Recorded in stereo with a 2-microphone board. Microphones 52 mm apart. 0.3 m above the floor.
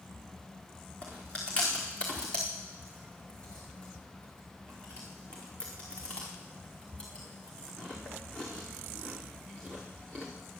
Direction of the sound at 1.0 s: 20° left (ahead or behind).